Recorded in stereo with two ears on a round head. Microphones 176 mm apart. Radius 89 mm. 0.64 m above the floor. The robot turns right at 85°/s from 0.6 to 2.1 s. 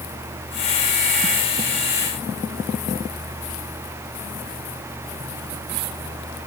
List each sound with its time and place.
Only background noise.